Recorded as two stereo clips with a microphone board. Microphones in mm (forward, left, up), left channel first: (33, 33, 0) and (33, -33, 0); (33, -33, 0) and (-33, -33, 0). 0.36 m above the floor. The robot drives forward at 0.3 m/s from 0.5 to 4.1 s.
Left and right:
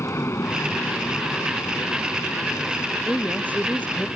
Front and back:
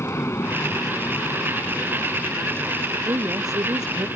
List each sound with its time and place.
0.0 s an aircraft: 50° left; by 4.2 s 40° left
3.1 s a woman speaking: 160° left